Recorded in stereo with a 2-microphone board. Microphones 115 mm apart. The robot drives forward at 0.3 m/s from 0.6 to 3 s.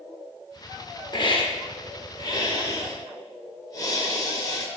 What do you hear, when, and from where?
1.1 s a hiss: 45° left (ahead or behind), 0.8 m; by 4.7 s 30° left (ahead or behind), 1.0 m